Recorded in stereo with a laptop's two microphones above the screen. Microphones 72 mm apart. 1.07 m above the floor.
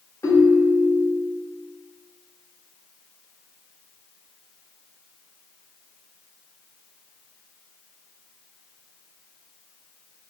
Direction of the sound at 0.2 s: 50° left (ahead or behind).